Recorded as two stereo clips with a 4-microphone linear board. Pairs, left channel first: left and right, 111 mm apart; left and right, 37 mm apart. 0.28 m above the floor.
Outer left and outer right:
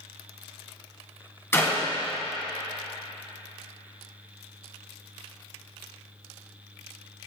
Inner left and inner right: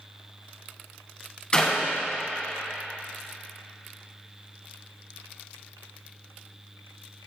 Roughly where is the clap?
Left.